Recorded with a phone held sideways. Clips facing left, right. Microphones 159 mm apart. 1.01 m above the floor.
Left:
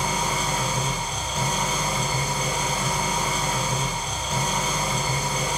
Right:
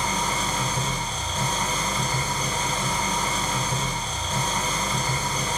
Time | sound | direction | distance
0.0 | an engine running | 10° left (ahead or behind) | 3 m